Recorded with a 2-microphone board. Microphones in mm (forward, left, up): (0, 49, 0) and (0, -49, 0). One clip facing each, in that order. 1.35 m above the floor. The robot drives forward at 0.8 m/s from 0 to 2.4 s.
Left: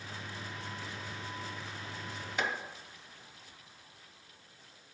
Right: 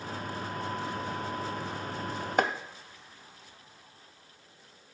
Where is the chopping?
50° right (ahead or behind), 0.7 m.